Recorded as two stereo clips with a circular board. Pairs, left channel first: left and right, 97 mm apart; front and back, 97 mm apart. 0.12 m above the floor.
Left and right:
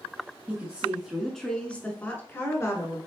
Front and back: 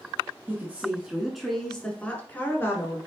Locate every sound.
0.5 s a woman speaking: 140° right, 1.3 m; by 3.0 s 50° left, 1.6 m